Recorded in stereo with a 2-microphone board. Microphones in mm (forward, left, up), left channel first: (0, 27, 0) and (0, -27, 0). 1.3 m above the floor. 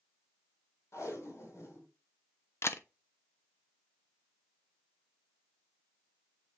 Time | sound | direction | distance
0.9 | tape being pulled | 65° left (ahead or behind) | 3 m
2.6 | a camera shutter | 55° left (ahead or behind) | 0.8 m